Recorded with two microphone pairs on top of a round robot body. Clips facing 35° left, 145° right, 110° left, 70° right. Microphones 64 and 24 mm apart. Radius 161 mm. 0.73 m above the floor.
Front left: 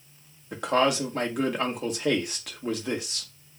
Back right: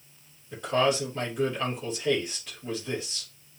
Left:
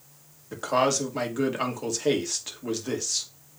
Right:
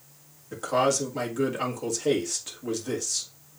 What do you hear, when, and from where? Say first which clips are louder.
0.5 s a man speaking: front left 2 dB, even; 45° left, 1.8 m